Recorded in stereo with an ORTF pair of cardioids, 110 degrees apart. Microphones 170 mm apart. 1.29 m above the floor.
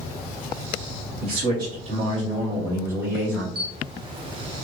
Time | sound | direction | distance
1.2 | a man speaking | 60° right | 1.3 m
3.5 | a camera shutter | 30° right | 0.8 m